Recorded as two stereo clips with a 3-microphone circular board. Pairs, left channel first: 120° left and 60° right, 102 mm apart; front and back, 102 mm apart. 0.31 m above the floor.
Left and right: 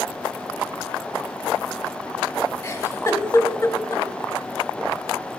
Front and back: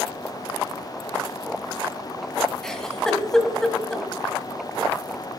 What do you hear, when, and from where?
2.6 s a giggle: 80° left, 1.5 m